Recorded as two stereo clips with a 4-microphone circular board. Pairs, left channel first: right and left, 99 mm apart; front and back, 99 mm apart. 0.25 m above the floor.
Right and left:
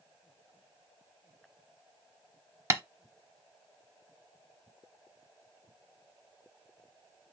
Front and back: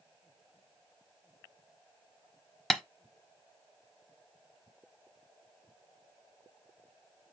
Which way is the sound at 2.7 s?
80° left.